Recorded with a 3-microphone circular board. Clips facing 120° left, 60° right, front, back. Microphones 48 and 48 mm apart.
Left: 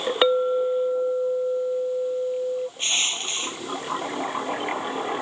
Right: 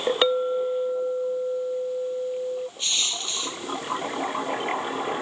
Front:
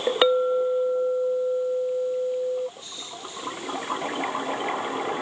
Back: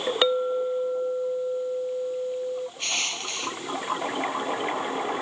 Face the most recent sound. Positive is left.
turn(degrees=175)